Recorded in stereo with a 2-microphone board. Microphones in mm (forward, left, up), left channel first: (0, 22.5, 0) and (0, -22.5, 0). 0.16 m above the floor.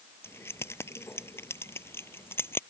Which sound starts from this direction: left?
Keys jangling, at 0.2 s.